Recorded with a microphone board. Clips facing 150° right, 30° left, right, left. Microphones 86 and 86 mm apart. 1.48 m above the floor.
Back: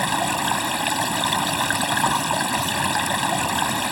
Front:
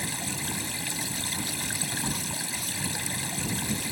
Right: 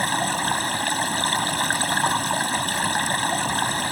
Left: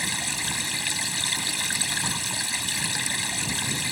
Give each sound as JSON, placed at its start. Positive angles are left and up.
{"t": 0.0, "sound": "running water", "azimuth_deg": -130}